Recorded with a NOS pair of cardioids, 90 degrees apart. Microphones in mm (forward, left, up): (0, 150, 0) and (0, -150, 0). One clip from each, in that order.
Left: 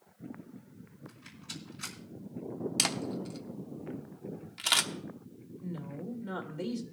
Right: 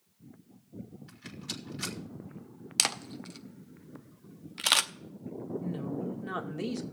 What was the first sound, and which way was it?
A rattle, 70° right.